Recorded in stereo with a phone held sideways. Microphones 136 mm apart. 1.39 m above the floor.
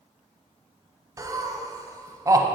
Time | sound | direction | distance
1.2 | laughter | 25° right (ahead or behind) | 0.6 m